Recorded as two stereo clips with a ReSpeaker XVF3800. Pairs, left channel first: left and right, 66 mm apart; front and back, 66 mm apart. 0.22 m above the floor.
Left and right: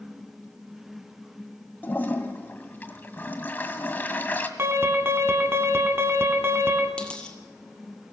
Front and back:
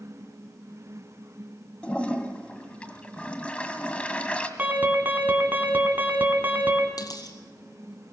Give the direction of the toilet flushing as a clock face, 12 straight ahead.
10 o'clock.